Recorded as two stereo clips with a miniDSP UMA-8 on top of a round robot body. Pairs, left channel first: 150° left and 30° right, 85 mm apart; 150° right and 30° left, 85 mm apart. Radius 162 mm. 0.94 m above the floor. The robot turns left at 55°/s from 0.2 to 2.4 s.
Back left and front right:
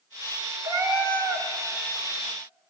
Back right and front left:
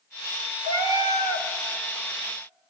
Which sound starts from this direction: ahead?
A cat meowing, at 0.6 s.